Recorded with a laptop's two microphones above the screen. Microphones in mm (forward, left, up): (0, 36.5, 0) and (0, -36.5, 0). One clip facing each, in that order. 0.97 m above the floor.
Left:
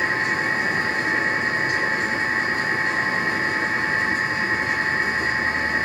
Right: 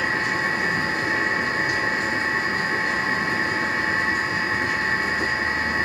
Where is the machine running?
30° left (ahead or behind), 2.5 m.